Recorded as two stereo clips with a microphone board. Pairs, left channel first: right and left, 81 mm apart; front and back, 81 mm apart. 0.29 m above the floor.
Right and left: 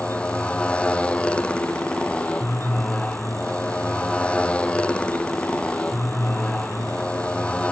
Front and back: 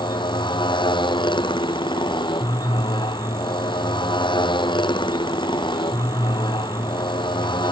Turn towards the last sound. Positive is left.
turn(degrees=-15)